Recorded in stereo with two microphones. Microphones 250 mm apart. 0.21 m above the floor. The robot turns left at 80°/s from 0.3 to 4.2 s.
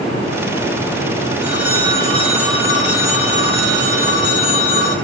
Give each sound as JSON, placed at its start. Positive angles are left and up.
{"t": 1.4, "sound": "a phone ringing", "azimuth_deg": 85, "distance_m": 4.5}